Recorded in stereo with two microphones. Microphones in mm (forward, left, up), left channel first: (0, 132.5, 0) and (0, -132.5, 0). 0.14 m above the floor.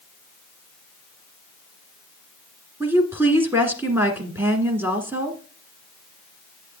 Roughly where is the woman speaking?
Centre.